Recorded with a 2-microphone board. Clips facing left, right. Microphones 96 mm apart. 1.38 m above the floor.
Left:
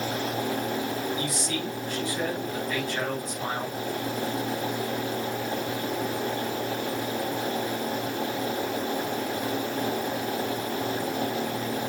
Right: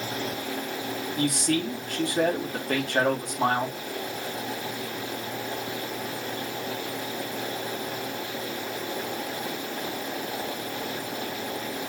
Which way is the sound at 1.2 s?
60° right (ahead or behind).